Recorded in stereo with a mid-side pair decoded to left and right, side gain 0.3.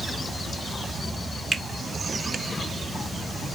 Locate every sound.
1.5 s a finger snap: 40° right, 1.4 m